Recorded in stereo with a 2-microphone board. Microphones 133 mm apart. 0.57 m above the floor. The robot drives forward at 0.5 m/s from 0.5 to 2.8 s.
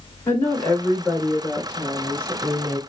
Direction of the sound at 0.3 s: 15° left (ahead or behind).